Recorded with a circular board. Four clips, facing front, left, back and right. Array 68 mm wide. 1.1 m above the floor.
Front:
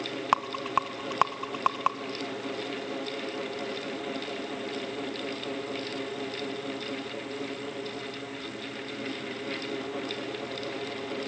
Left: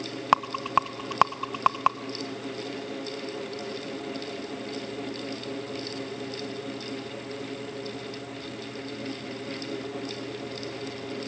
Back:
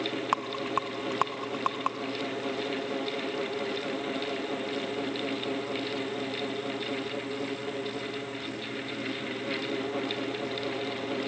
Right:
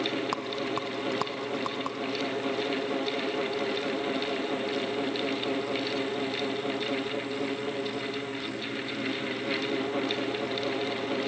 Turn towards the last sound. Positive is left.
turn(degrees=75)